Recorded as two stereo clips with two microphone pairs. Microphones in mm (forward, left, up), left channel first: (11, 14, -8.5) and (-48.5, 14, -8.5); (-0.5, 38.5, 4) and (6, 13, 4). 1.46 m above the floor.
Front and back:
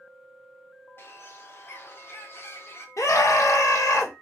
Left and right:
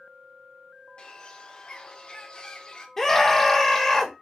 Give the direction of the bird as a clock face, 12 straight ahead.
10 o'clock.